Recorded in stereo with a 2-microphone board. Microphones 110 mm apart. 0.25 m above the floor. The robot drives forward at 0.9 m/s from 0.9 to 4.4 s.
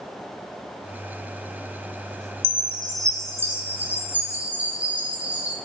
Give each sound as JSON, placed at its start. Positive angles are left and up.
{"t": 2.4, "sound": "a chime", "side_deg": -60, "distance_m": 0.6}